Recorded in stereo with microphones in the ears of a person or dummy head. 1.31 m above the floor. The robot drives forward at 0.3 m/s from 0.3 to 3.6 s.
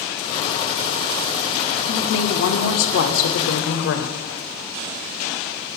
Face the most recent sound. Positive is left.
turn(degrees=60)  # may be behind; listen again after turning